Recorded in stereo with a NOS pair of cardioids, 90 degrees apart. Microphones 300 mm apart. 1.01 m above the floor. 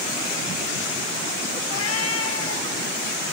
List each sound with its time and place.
1.7 s a cat meowing: 60° left, 2.5 m; by 2.7 s 45° left, 2.5 m